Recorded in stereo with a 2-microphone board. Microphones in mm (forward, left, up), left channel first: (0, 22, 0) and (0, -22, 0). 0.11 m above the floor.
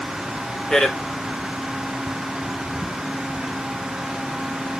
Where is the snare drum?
I don't hear a snare drum.